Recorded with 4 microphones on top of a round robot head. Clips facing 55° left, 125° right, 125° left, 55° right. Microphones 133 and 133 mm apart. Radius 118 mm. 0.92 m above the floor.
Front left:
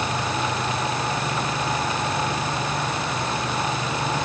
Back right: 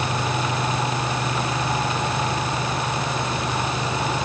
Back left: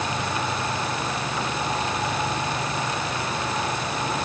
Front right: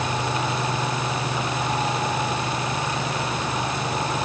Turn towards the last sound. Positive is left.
No sound to turn to.